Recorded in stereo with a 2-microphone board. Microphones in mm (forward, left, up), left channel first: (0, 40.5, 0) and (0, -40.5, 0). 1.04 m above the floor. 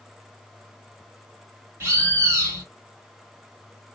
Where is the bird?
30° right (ahead or behind), 1.5 m.